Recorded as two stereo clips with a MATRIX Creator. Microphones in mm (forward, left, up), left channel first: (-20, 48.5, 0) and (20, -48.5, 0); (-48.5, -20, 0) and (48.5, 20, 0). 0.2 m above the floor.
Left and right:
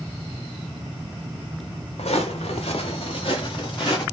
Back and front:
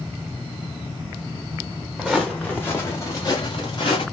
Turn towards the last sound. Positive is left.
turn(degrees=160)